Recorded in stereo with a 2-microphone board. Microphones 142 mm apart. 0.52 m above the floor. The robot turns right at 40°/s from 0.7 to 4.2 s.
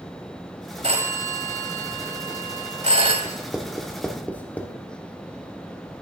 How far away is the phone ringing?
About 1.4 m.